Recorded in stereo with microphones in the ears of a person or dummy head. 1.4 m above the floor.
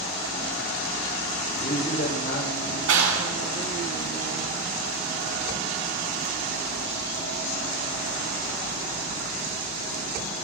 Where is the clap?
80° right, 6.5 m.